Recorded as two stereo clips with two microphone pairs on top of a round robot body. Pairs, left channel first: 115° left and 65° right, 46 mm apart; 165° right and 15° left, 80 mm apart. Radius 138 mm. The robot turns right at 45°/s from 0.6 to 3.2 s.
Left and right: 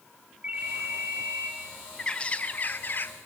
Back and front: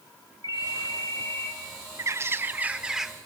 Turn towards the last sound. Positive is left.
turn(degrees=105)